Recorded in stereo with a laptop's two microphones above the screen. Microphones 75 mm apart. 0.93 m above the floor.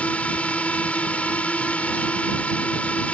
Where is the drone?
15° left (ahead or behind).